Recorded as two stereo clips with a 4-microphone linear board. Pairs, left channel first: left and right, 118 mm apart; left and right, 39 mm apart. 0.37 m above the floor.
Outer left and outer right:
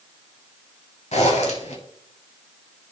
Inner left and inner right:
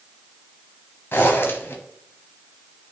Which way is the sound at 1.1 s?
70° left (ahead or behind).